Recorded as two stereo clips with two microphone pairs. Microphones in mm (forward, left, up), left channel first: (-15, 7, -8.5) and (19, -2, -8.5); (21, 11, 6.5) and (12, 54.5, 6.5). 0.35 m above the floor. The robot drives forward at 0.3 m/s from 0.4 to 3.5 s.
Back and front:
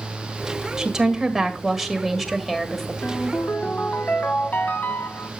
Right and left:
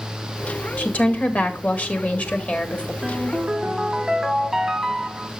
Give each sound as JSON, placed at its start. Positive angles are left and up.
{"t": 0.8, "sound": "a woman speaking", "azimuth_deg": -80, "distance_m": 1.5}
{"t": 3.0, "sound": "a ringtone", "azimuth_deg": 180, "distance_m": 1.2}